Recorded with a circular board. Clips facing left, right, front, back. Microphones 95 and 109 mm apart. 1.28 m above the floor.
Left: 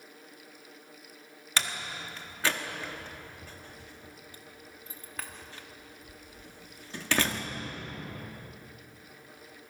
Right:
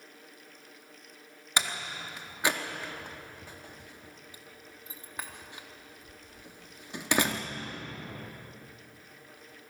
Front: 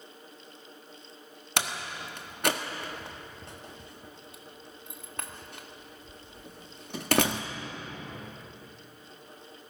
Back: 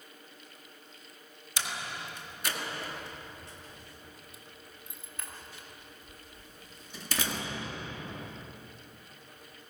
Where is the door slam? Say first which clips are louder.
Right 1 dB, front 4 dB; 20° right, 1.4 m.